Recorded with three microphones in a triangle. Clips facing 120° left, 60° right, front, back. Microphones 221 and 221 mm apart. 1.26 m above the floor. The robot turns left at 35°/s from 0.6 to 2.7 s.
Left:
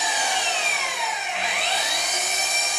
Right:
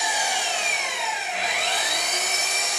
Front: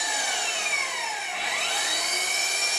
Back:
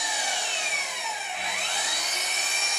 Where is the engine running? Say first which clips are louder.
Left 1 dB, even; 20° left, 0.9 m; by 2.8 s 55° right, 0.9 m.